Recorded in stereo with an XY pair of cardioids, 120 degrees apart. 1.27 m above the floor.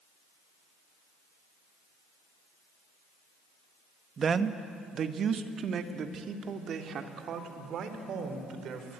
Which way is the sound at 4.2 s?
40° right.